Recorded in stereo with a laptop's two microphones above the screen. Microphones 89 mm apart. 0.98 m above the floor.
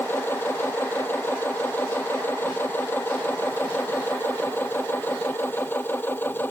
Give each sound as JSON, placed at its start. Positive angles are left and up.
{"t": 0.0, "sound": "a machine running", "side_deg": 25}